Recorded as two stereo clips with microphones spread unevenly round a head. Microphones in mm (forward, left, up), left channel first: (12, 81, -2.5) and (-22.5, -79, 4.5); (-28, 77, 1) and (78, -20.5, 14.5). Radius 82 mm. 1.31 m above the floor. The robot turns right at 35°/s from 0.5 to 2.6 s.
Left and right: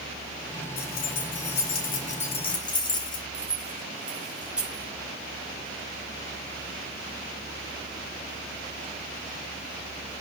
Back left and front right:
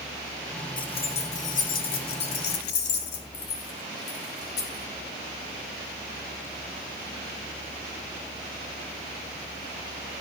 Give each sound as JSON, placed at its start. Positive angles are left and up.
{"t": 0.8, "sound": "keys jangling", "azimuth_deg": 80, "distance_m": 3.0}
{"t": 3.3, "sound": "keys jangling", "azimuth_deg": 175, "distance_m": 4.0}